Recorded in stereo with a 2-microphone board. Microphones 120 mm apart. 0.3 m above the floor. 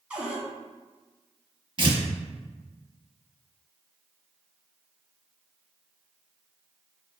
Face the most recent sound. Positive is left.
turn(degrees=-45)  # may be behind; listen again after turning